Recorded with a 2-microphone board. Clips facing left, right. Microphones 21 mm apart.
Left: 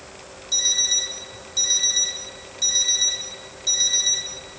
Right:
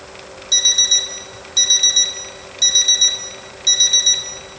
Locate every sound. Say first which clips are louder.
0.5 s an alarm clock: right 7 dB; 40° right (ahead or behind), 0.7 m